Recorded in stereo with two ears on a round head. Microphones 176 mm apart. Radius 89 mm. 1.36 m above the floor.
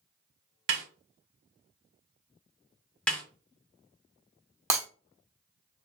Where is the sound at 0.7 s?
70° right (ahead or behind), 1.2 m.